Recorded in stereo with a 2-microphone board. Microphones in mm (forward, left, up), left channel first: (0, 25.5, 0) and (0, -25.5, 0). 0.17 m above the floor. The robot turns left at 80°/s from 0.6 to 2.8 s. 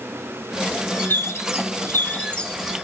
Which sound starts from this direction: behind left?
A bird, at 1.0 s.